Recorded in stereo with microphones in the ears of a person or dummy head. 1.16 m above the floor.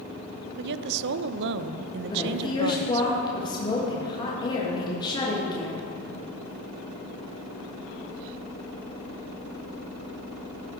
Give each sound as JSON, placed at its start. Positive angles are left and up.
{"t": 0.6, "sound": "a woman speaking", "side_deg": -60, "distance_m": 0.5}
{"t": 2.1, "sound": "a woman speaking", "side_deg": 30, "distance_m": 1.7}